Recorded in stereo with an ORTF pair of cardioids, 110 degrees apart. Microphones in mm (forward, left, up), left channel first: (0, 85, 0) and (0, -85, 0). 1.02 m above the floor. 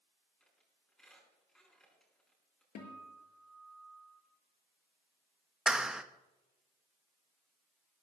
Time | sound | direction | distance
0.4 | a squeak | 5° left | 6 m
2.8 | a guitar | 60° left | 5.5 m
5.7 | a clap | 5° right | 1.1 m